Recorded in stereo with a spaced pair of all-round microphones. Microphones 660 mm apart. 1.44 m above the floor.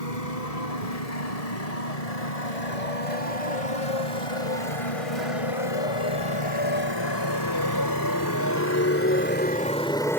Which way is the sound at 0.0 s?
70° left (ahead or behind).